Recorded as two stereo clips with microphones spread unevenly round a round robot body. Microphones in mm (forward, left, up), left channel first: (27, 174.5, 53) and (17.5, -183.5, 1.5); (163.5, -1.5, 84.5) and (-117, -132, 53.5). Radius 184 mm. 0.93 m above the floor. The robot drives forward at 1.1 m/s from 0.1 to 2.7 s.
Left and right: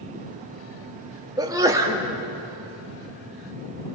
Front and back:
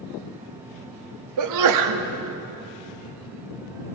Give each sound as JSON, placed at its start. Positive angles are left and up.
{"t": 1.4, "sound": "a sneeze", "azimuth_deg": -170, "distance_m": 1.5}